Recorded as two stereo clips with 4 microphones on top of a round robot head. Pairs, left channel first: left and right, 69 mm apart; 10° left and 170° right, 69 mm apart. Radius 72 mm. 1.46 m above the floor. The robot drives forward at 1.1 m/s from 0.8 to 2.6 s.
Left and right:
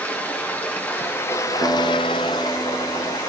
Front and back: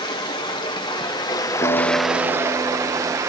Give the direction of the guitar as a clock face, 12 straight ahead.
12 o'clock.